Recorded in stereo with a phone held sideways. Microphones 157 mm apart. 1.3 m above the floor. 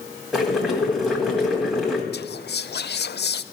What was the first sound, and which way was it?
Boiling, 5° right (ahead or behind).